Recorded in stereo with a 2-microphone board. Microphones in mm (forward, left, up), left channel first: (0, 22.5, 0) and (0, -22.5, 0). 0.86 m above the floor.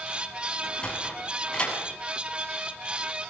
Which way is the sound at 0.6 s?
20° left (ahead or behind).